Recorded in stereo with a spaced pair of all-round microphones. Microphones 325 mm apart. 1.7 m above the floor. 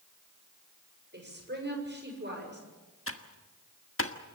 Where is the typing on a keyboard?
40° left (ahead or behind), 1.4 m.